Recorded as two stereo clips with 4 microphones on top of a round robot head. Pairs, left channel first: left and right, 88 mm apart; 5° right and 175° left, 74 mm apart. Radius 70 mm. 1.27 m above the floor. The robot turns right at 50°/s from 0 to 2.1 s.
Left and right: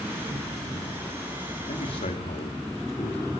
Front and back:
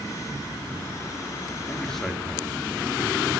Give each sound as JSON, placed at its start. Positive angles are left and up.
{"t": 1.7, "sound": "a man speaking", "azimuth_deg": 60, "distance_m": 4.0}